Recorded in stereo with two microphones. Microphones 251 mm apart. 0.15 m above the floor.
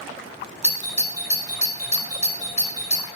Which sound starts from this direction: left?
A doorbell, at 0.6 s.